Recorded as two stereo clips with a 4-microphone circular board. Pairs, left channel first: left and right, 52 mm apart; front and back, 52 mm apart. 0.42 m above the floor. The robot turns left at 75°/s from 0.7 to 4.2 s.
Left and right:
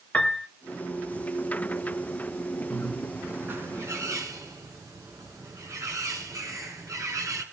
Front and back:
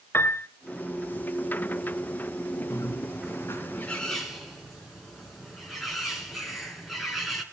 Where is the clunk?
I don't hear a clunk.